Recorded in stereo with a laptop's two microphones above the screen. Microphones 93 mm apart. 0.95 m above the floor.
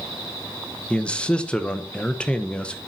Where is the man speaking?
10° left (ahead or behind), 0.9 m.